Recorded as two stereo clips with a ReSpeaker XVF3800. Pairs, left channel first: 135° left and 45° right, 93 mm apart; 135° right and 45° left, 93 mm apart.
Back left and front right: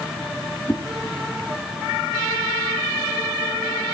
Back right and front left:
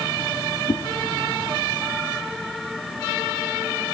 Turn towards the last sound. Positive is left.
turn(degrees=-165)